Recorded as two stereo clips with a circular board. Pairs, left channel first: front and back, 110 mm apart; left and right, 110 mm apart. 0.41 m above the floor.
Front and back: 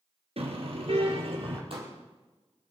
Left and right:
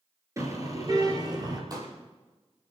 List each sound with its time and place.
0.4 s a car horn: 150° right, 2.5 m; by 1.6 s 145° right, 4 m
1.7 s a pop: 145° right, 4 m